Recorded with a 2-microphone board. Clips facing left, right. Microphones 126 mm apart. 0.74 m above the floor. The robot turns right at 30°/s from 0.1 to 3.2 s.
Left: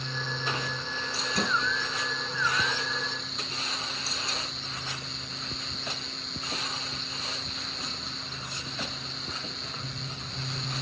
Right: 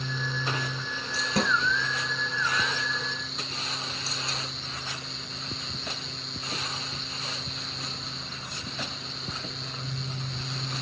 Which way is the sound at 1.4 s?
70° right (ahead or behind).